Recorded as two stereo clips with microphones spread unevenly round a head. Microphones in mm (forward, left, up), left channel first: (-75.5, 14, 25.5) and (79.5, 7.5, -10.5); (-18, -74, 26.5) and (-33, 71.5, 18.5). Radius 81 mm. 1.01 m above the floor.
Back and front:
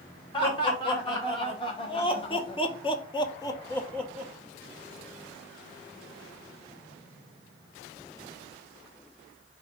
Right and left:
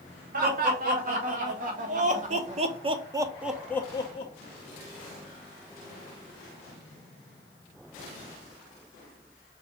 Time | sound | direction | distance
0.3 | laughter | 115° left | 1.9 m